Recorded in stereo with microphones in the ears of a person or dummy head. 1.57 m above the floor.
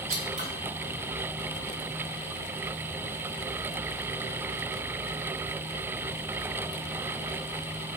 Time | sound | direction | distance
0.1 | scissors | 35° right (ahead or behind) | 0.5 m